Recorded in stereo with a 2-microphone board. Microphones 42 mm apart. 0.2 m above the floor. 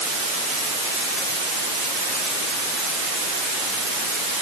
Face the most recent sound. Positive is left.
No sound to turn to.